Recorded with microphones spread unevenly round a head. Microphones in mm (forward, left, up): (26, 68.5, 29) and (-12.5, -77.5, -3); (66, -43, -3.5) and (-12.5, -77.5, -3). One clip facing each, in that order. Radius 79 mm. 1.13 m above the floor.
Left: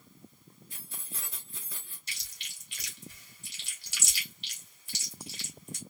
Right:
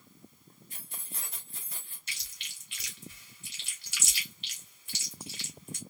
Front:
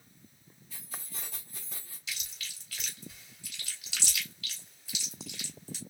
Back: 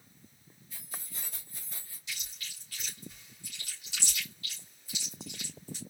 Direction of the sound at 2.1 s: 15° left.